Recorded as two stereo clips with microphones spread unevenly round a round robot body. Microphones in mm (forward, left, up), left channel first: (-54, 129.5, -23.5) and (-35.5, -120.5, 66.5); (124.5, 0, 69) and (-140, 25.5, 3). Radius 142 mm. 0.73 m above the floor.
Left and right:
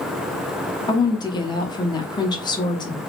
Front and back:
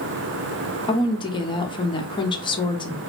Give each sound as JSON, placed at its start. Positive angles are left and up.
{"t": 0.9, "sound": "a woman speaking", "azimuth_deg": 75, "distance_m": 0.7}